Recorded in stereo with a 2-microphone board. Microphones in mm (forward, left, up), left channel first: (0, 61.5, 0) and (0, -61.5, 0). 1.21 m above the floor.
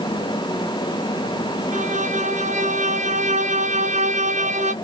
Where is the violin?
65° right (ahead or behind), 0.6 m.